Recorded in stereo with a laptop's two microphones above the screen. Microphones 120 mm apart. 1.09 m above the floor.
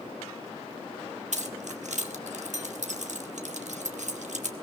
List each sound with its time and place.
1.3 s keys jangling: 80° right, 1.3 m